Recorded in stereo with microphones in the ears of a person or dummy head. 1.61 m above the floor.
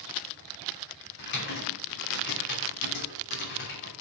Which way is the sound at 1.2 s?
50° left (ahead or behind).